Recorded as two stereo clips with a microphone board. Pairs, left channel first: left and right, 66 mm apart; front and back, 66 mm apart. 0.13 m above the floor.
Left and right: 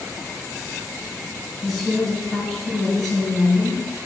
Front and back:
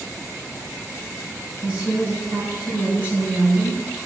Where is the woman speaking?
170° left, 1.1 m.